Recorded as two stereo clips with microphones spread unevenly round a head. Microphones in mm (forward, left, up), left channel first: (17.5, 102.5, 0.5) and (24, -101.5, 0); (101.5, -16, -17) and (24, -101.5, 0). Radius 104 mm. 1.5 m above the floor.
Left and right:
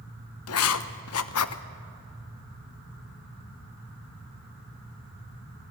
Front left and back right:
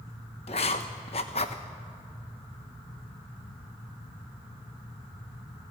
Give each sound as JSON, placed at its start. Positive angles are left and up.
{"t": 0.5, "sound": "writing", "azimuth_deg": 105, "distance_m": 1.0}